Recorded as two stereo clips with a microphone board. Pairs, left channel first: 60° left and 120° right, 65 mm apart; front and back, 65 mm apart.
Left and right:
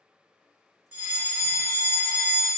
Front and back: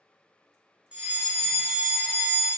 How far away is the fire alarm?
About 1.3 m.